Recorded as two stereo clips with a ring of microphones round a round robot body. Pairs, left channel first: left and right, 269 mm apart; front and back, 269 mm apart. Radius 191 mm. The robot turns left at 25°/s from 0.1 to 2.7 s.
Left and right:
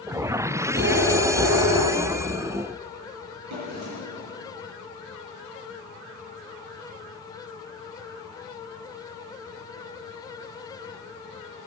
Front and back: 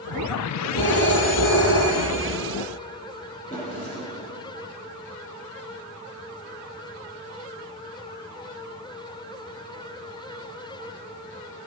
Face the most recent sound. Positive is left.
turn(degrees=-80)